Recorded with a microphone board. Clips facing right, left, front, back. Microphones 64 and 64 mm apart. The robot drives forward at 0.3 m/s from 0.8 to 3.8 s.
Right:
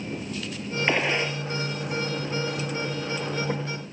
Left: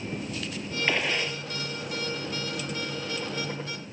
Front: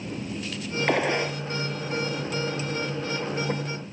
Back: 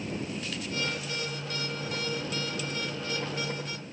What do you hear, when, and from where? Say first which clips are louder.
0.9 s a gunshot: right 3 dB, front 11 dB; 20° right